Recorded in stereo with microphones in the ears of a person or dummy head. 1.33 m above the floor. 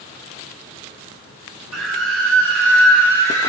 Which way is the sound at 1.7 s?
80° right.